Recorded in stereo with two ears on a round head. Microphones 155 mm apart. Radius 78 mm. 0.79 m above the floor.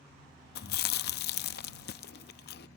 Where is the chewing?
60° left (ahead or behind).